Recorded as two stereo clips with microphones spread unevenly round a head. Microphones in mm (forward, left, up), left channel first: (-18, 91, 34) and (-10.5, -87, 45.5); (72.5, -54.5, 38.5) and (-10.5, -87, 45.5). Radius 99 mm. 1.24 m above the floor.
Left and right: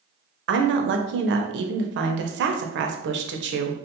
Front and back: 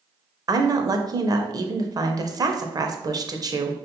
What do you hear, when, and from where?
0.5 s a woman speaking: 110° right, 0.7 m